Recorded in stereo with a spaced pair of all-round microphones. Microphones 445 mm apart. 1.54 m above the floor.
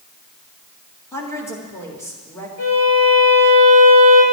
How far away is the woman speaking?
About 2.5 m.